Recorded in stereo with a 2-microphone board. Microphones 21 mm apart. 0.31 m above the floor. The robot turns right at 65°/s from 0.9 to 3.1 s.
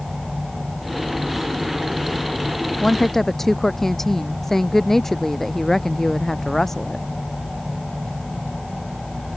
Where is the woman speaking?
35° left (ahead or behind); by 7.0 s 15° left (ahead or behind).